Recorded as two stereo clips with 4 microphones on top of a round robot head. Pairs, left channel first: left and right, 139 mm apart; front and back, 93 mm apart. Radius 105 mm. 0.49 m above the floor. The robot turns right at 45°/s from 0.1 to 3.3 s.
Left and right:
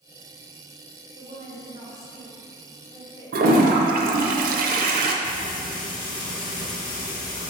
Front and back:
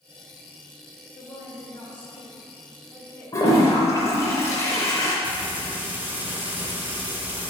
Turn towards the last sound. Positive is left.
turn(degrees=110)